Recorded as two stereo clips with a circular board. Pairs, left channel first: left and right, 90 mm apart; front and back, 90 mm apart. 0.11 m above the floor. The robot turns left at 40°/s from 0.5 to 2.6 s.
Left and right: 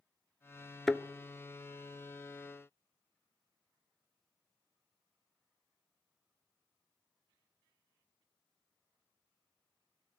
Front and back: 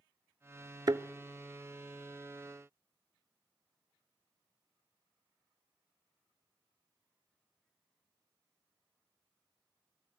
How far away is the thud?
About 0.6 m.